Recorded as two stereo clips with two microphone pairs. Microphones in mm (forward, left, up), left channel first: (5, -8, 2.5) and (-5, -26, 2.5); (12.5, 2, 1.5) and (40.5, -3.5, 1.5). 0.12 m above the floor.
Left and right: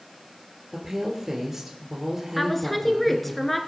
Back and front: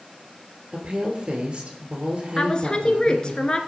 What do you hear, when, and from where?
0.7 s a woman speaking: 50° right, 2 m
2.4 s a woman speaking: 140° left, 1.3 m